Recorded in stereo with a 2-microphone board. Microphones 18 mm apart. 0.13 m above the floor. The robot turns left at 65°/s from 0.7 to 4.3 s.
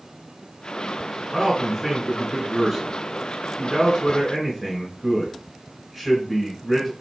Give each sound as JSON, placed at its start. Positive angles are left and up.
{"t": 1.3, "sound": "a man speaking", "side_deg": -10, "distance_m": 1.4}